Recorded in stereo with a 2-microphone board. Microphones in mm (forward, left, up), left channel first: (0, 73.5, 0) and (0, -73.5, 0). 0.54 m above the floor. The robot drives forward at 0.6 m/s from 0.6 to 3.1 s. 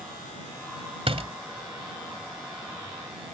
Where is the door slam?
45° right (ahead or behind).